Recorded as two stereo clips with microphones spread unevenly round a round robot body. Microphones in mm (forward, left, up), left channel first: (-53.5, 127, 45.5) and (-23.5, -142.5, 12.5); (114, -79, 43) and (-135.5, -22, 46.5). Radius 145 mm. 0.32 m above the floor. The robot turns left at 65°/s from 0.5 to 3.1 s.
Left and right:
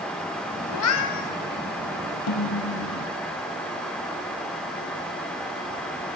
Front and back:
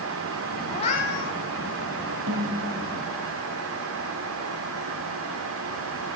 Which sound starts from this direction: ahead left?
A cat meowing, at 0.7 s.